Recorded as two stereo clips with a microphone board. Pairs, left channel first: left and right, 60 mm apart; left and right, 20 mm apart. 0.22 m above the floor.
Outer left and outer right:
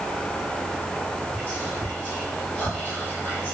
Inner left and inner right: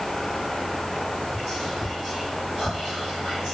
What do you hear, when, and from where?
1.3 s whispering: 25° right (ahead or behind), 1.8 m